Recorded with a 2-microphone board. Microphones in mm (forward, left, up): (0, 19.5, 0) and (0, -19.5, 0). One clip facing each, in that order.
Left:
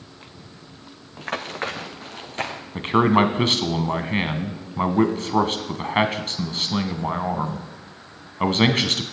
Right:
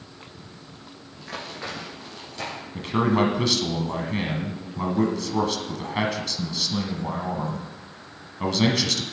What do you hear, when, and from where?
1.2 s running footsteps: 60° left (ahead or behind), 1.5 m; by 2.6 s 45° left (ahead or behind), 3 m
2.8 s a man speaking: 45° left (ahead or behind), 1.3 m